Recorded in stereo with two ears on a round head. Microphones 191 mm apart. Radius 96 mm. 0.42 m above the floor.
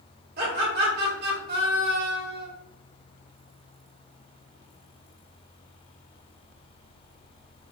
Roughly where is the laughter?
Right.